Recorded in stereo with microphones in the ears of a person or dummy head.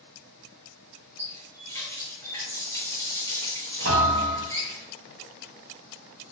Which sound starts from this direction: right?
A thud, at 3.9 s.